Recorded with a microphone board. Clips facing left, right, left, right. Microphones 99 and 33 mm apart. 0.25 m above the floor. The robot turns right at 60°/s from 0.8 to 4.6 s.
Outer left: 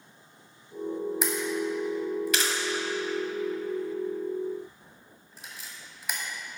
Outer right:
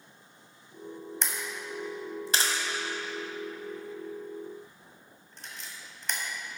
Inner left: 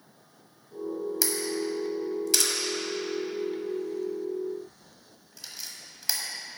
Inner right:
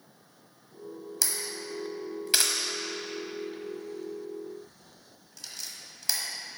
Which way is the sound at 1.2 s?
10° left (ahead or behind).